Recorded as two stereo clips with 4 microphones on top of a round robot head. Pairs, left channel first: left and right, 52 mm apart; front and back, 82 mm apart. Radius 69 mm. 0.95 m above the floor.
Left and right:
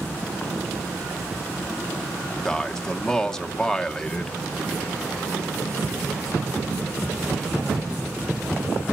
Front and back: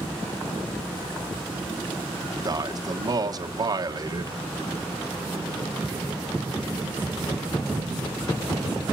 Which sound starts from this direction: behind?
A man speaking, at 2.5 s.